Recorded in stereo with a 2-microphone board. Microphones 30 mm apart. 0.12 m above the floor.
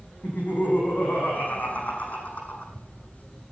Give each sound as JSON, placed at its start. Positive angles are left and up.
{"t": 0.2, "sound": "laughter", "side_deg": 70, "distance_m": 6.5}